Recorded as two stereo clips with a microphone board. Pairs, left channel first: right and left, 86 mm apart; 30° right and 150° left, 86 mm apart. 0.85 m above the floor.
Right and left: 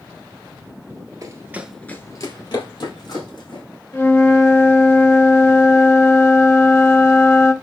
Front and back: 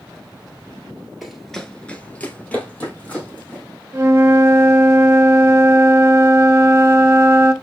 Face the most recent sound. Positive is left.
turn(degrees=-150)